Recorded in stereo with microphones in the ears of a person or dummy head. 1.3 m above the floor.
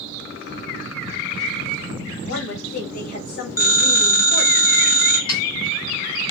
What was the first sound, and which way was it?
A woman speaking, 60° left (ahead or behind).